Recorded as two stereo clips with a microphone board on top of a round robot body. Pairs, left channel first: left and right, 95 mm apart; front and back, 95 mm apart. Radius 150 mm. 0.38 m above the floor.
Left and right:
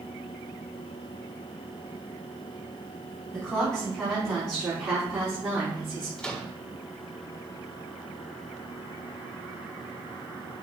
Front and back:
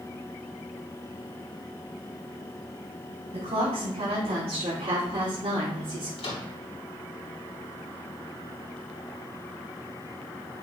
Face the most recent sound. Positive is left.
turn(degrees=10)